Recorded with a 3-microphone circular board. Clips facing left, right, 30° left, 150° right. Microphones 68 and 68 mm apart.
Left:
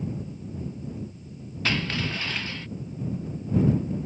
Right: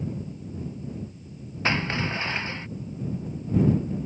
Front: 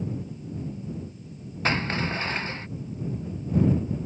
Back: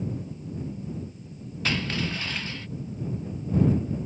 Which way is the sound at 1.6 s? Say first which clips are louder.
Right 2 dB, front 3 dB; 25° right.